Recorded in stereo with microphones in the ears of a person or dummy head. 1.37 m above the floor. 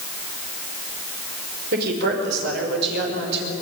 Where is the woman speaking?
65° right (ahead or behind), 5 m; by 3.5 s 70° right (ahead or behind), 6.5 m.